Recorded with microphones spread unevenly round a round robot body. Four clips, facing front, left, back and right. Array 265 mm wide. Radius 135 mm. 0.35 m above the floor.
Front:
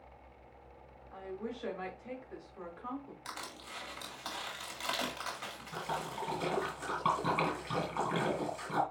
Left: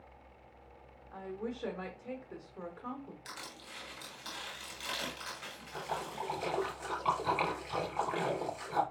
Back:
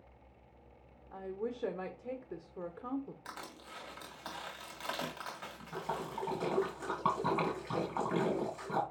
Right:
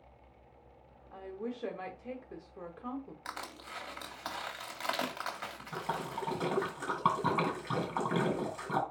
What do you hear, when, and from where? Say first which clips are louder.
1.1 s a woman speaking: even, back 2 dB; 170° right, 1.6 m
3.2 s crushing: right 5 dB, front 2 dB; 85° right, 2.5 m
5.7 s a splash: right 1 dB, even; 100° right, 5.5 m